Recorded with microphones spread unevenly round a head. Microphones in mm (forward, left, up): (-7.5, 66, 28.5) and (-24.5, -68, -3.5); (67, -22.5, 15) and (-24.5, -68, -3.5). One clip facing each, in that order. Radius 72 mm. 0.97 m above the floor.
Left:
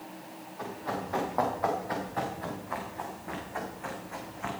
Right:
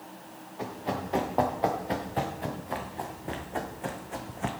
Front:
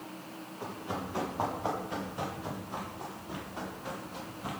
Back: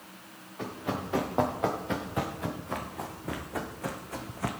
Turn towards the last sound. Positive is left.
turn(degrees=-150)